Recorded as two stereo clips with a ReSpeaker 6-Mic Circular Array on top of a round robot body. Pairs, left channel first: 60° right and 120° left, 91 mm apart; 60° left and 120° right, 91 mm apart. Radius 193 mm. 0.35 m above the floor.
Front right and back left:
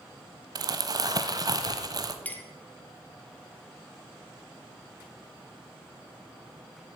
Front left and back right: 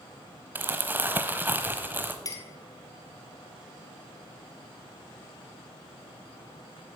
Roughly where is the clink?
Ahead.